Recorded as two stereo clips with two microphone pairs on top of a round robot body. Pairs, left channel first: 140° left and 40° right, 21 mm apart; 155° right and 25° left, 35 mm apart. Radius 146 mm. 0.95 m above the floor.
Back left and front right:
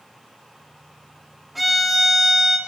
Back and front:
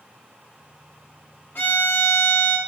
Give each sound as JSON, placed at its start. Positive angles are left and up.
{"t": 1.6, "sound": "a violin", "azimuth_deg": -125, "distance_m": 1.8}